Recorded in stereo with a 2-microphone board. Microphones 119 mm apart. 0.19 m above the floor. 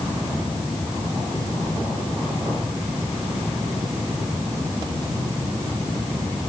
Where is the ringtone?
I don't hear a ringtone.